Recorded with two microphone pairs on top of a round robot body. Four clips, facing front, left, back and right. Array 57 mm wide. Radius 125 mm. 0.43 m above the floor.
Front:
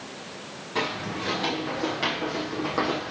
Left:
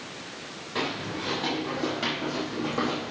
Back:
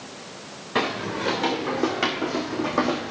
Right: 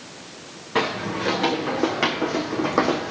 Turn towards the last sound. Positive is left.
turn(degrees=-110)